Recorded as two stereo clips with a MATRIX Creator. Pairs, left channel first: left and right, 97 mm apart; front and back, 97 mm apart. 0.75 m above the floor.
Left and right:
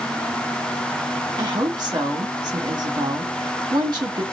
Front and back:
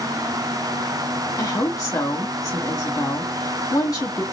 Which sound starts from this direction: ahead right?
A woman speaking, at 1.4 s.